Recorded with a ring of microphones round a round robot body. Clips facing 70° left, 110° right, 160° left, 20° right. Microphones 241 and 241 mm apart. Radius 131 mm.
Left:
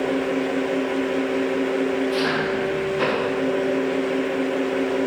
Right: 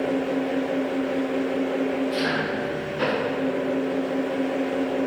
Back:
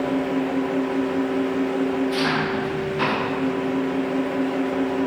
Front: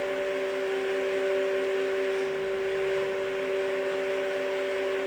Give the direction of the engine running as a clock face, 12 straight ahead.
7 o'clock.